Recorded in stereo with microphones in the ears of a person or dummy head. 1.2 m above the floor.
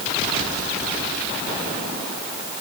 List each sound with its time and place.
Only background noise.